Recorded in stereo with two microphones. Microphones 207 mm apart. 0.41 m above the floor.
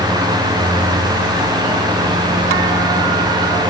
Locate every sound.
Only background noise.